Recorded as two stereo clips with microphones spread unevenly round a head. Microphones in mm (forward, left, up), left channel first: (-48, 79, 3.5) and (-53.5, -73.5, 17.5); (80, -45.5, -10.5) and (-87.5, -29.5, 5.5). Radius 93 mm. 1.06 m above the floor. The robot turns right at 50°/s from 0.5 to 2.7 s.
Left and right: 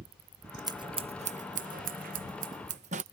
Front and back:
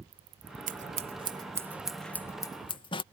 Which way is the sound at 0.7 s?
155° right.